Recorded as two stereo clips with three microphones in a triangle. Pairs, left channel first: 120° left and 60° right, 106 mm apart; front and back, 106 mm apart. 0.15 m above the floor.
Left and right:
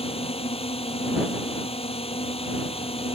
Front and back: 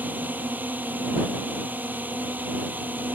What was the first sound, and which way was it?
A drone, 110° left.